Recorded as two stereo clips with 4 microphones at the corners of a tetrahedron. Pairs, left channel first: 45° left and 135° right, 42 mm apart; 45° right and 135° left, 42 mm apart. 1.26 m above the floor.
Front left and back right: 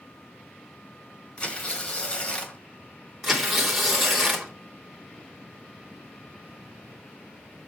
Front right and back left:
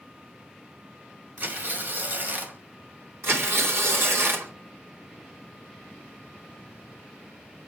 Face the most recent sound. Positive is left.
turn(degrees=135)